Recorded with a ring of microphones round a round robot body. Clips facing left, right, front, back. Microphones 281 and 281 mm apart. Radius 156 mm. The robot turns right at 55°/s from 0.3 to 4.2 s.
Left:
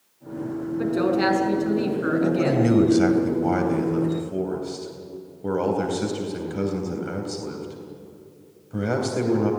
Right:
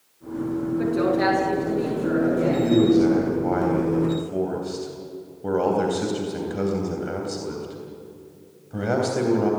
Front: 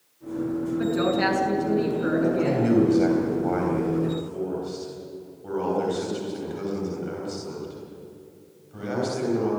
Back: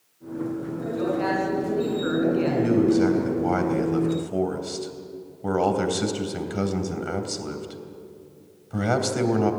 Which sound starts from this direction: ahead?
A woman speaking, at 0.8 s.